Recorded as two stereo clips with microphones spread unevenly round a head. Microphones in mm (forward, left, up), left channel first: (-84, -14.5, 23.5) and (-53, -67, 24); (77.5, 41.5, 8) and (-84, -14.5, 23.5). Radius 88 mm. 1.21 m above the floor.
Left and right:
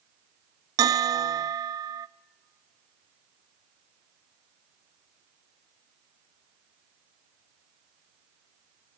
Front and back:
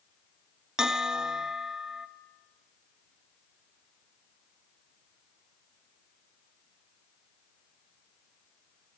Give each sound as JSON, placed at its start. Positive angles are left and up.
{"t": 0.8, "sound": "a bell", "azimuth_deg": -75, "distance_m": 0.5}